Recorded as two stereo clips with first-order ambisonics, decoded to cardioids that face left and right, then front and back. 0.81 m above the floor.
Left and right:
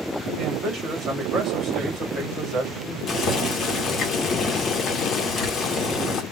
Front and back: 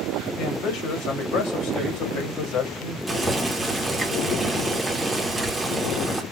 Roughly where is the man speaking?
Ahead right.